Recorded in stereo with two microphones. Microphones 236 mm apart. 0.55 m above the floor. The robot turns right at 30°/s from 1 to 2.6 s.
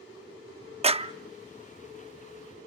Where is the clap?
25° right (ahead or behind), 0.5 m.